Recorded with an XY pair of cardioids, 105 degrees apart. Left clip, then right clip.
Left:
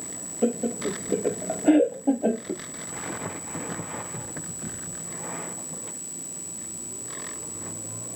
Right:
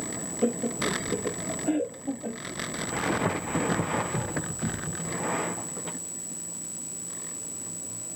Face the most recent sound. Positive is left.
turn(degrees=75)